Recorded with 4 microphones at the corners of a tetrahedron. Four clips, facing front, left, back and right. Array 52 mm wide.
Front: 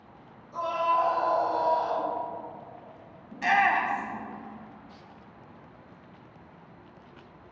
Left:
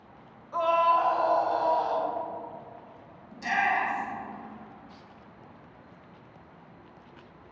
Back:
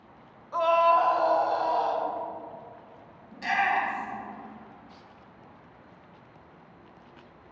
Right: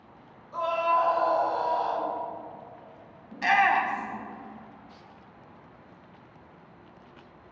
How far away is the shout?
About 1.2 m.